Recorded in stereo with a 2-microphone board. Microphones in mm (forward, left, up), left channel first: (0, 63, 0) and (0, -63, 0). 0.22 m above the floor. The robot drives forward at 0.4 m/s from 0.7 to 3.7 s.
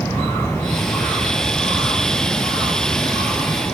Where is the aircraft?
15° left (ahead or behind).